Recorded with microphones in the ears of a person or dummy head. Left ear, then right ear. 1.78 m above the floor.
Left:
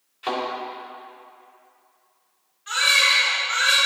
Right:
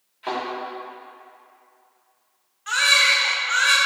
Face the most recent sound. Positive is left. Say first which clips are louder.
# right 1 dB
turn(degrees=-35)  # may be behind; listen again after turning